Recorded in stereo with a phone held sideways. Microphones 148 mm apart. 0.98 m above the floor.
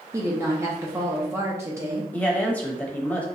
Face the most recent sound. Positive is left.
turn(degrees=10)  # may be behind; listen again after turning